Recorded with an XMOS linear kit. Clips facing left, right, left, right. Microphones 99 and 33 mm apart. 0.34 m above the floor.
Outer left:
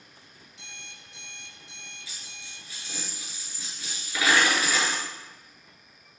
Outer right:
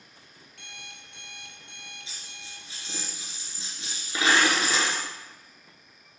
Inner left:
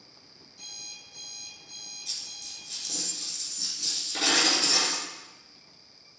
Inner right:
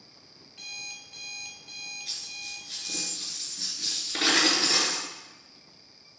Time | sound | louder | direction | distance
0.5 | an alarm clock | outer right 2 dB, inner right 5 dB | 60° right (ahead or behind) | 1.8 m
2.1 | a dropped coin | outer right 1 dB, inner right 2 dB | 25° right (ahead or behind) | 2.5 m